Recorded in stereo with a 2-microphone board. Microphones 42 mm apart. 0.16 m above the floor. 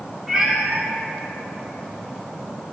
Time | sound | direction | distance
0.3 | a cat meowing | 10° right (ahead or behind) | 3 m